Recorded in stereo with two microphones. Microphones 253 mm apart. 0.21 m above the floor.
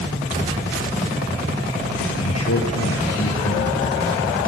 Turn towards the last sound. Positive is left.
turn(degrees=75)  # may be behind; listen again after turning